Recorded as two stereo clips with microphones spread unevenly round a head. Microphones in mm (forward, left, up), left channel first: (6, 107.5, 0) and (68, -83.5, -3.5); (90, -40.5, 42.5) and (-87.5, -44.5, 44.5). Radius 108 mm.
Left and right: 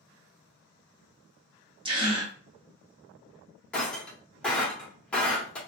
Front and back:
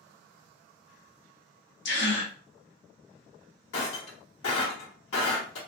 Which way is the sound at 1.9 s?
10° right.